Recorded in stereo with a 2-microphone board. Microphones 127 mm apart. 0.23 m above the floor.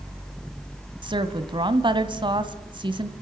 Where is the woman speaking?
40° right (ahead or behind), 1.4 m.